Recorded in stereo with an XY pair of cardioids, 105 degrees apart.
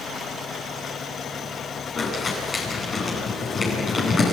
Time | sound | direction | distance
2.0 | crumpling | 35° left | 9 m